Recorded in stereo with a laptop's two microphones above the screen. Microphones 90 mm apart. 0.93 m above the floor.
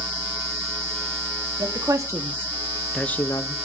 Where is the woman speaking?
40° right (ahead or behind), 2 m; by 3.5 s 45° left (ahead or behind), 1.0 m.